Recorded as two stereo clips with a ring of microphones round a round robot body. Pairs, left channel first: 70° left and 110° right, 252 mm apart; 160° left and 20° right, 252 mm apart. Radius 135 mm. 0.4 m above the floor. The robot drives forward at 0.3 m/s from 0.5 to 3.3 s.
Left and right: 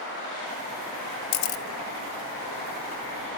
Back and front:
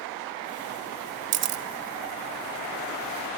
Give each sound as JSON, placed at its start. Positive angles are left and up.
{"t": 1.3, "sound": "a camera shutter", "azimuth_deg": 25, "distance_m": 0.7}